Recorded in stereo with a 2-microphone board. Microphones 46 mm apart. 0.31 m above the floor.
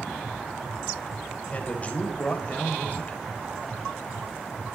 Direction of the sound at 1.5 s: 30° left (ahead or behind).